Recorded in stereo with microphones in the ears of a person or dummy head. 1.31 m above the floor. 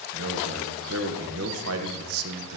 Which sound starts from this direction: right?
A man speaking, at 0.1 s.